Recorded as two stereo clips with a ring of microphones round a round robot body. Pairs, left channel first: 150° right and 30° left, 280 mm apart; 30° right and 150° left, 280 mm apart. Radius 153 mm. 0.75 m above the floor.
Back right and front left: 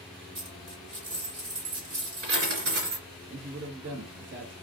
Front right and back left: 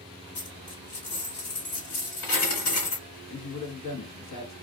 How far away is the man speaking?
About 1.1 m.